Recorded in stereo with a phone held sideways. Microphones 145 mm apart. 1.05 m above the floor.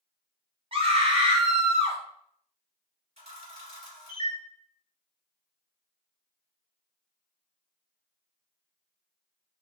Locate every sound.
0.7 s a scream: 40° right (ahead or behind), 1.4 m
3.2 s a camera shutter: 45° right (ahead or behind), 2.5 m